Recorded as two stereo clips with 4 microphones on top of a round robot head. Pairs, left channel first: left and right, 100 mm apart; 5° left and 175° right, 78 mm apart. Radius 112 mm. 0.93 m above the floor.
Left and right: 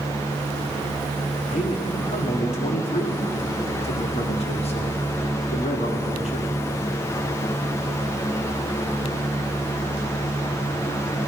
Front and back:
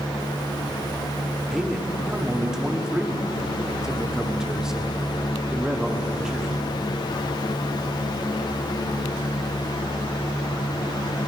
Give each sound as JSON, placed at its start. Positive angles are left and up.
{"t": 1.5, "sound": "a man speaking", "azimuth_deg": 105, "distance_m": 1.9}